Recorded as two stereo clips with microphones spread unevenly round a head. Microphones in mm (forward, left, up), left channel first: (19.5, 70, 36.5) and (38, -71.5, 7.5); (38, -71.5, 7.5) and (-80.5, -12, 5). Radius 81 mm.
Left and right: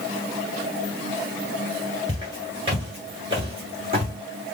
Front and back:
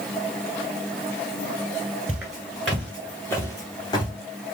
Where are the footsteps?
140° right, 1.7 m; by 4.1 s 50° right, 1.9 m.